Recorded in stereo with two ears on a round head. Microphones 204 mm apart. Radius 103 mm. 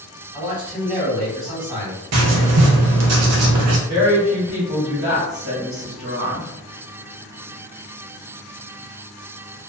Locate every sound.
0.3 s a man speaking: 35° right (ahead or behind), 1.5 m
2.1 s writing: 70° right (ahead or behind), 0.6 m
3.9 s a woman speaking: 30° right (ahead or behind), 1.5 m